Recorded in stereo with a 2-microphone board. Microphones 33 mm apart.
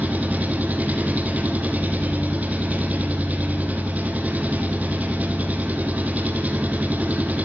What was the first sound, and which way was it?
An engine running, 50° right (ahead or behind).